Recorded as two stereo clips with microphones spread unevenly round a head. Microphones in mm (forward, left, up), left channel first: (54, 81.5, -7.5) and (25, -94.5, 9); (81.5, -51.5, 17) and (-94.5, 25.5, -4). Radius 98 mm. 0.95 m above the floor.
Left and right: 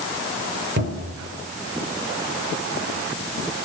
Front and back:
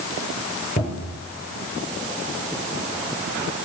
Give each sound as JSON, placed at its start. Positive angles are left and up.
{"t": 0.8, "sound": "a cupboard door", "azimuth_deg": -80, "distance_m": 5.0}